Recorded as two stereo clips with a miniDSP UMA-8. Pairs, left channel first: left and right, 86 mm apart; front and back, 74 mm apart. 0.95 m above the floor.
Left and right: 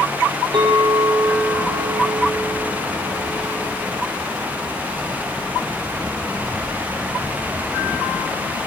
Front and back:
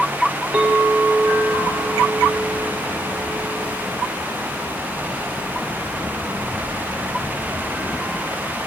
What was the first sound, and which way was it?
A clink, 110° right.